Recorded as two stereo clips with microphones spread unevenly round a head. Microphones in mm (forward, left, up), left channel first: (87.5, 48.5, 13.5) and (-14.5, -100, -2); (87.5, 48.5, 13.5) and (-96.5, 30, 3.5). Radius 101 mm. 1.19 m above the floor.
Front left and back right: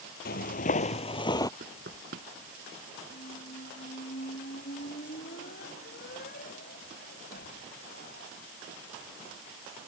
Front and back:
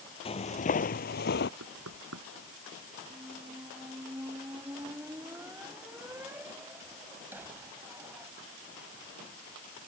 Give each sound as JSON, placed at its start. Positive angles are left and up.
{"t": 0.2, "sound": "footsteps", "azimuth_deg": 55}
{"t": 1.6, "sound": "knocking", "azimuth_deg": -175}
{"t": 3.1, "sound": "a squeak", "azimuth_deg": 105}